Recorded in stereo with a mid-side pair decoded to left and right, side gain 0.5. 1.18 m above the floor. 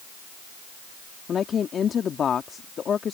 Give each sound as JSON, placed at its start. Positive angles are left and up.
{"t": 1.3, "sound": "a woman speaking", "azimuth_deg": 45}